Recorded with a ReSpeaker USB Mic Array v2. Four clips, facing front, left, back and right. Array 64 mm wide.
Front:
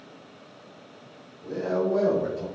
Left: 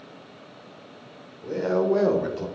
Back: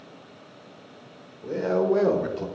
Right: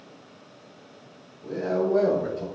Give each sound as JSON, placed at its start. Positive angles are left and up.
{"t": 1.4, "sound": "a man speaking", "azimuth_deg": 140, "distance_m": 1.8}